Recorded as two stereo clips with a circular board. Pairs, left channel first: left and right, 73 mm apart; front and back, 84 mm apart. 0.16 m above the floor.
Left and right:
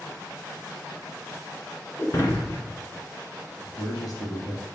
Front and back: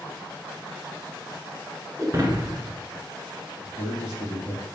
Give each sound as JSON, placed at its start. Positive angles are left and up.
{"t": 2.0, "sound": "breaking glass", "azimuth_deg": 135, "distance_m": 1.4}
{"t": 3.6, "sound": "a man speaking", "azimuth_deg": 55, "distance_m": 3.5}